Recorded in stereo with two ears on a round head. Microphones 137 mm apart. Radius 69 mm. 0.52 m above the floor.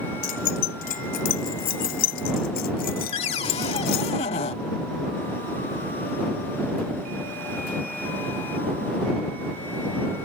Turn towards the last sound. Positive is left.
turn(degrees=40)  # may be behind; listen again after turning